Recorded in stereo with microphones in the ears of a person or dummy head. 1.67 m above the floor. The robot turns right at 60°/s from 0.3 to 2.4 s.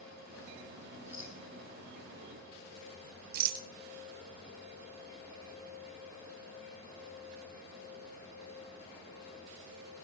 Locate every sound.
1.1 s a rattle: 15° right (ahead or behind), 5.5 m; by 1.4 s 5° left (ahead or behind), 5.5 m
3.3 s a rattle: 55° right (ahead or behind), 1.3 m